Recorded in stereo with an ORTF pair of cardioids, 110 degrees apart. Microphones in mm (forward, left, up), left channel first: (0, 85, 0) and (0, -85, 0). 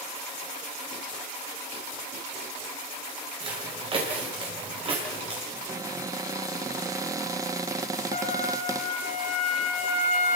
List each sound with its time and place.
3.4 s footsteps: 30° right, 9 m; by 5.4 s 35° right, 10 m
5.5 s a cupboard door: 20° right, 0.9 m
8.1 s a trumpet: 40° left, 4.5 m